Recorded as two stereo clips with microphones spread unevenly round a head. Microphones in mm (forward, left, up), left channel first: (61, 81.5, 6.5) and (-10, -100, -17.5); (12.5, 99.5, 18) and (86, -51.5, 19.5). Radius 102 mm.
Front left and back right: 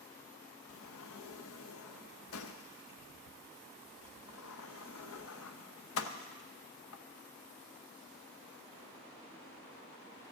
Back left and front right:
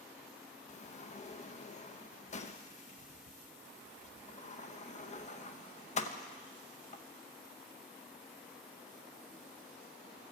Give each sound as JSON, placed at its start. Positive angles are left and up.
{"t": 0.7, "sound": "a sliding door", "azimuth_deg": 65, "distance_m": 0.8}